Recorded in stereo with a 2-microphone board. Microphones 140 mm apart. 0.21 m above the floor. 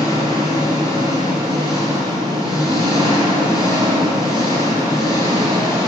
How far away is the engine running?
About 3.5 m.